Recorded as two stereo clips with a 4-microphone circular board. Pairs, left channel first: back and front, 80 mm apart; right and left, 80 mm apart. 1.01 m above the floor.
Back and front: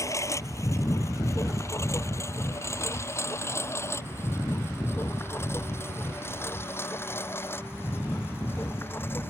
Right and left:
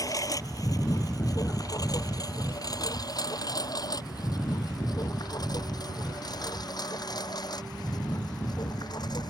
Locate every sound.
0.0 s a lawn mower: 130° right; by 9.3 s 120° right